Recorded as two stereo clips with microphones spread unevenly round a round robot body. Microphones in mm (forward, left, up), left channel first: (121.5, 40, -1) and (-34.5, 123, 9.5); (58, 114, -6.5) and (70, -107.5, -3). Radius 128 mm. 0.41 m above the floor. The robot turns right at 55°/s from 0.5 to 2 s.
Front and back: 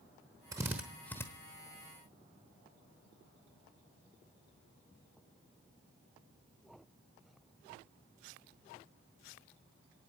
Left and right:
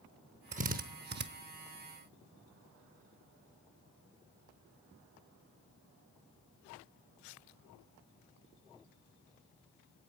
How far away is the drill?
About 0.8 m.